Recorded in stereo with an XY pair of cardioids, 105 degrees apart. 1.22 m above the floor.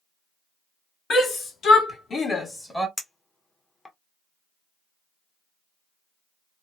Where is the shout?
65° left, 1.4 m; by 2.9 s 10° left, 0.8 m.